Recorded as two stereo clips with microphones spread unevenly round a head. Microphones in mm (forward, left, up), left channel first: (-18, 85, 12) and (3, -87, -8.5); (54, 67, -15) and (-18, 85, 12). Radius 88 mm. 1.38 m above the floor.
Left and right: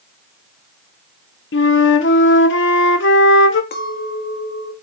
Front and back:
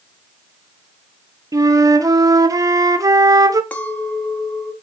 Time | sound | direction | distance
1.5 | a flute | 115° left | 1.2 m
3.7 | a clink | 60° left | 1.8 m